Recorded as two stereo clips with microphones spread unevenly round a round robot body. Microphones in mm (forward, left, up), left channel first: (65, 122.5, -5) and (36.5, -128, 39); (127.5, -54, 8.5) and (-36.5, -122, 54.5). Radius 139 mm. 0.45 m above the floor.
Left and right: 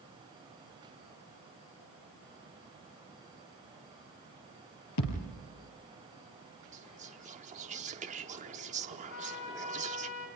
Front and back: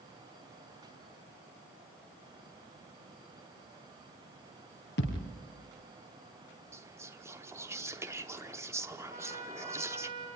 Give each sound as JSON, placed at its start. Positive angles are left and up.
{"t": 5.0, "sound": "a thud", "azimuth_deg": 65, "distance_m": 3.5}
{"t": 6.7, "sound": "whispering", "azimuth_deg": -65, "distance_m": 0.9}
{"t": 9.1, "sound": "a trumpet", "azimuth_deg": 135, "distance_m": 3.5}